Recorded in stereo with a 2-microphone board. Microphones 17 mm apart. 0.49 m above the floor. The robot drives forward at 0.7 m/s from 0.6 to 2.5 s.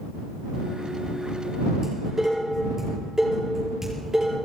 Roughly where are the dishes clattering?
Right.